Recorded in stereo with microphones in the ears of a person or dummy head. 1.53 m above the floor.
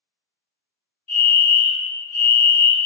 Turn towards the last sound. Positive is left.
turn(degrees=10)  # may be behind; listen again after turning